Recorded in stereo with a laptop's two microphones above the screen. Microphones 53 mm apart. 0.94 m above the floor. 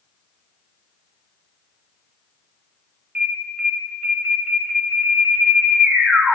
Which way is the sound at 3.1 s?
30° right (ahead or behind).